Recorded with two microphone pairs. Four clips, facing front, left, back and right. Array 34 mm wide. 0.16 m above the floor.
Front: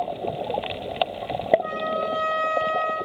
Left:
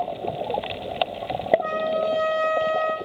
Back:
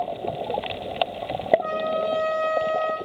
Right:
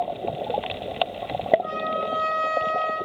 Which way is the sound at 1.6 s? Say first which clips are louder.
Left 3 dB, back 1 dB; 110° left.